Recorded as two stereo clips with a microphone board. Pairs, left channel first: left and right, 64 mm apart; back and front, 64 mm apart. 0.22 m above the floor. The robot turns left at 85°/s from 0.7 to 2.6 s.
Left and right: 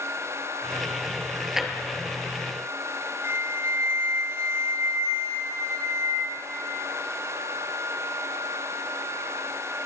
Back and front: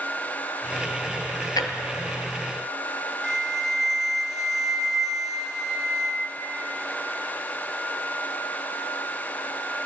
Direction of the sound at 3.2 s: 80° right.